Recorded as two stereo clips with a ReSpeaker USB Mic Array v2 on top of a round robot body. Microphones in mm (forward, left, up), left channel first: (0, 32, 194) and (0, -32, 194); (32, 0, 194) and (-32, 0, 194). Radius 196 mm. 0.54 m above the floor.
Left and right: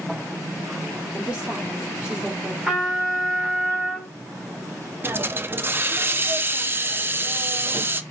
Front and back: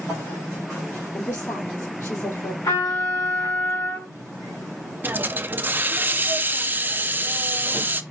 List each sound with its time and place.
1.1 s a woman speaking: 20° right, 2.0 m
2.6 s a trumpet: 5° right, 2 m
5.0 s a hiss: 130° right, 0.5 m